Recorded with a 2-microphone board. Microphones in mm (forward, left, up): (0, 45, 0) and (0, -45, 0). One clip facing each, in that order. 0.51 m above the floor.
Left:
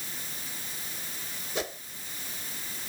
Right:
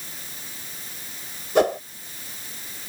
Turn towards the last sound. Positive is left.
turn(degrees=-65)  # may be behind; listen again after turning